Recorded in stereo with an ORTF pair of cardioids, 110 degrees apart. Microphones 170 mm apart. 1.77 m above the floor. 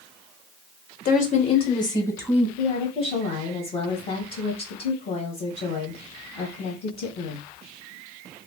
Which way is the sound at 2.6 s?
45° left.